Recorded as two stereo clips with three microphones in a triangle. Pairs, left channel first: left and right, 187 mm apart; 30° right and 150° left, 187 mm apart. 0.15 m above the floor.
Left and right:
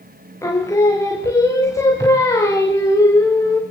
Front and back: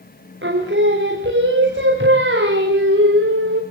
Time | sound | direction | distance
0.4 | singing | 165° left | 5.5 m